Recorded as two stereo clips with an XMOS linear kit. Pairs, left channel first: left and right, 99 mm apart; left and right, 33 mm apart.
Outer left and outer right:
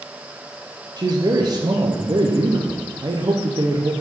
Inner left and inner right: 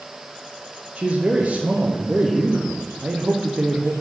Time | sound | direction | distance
1.0 | a man speaking | 40° right (ahead or behind) | 0.9 m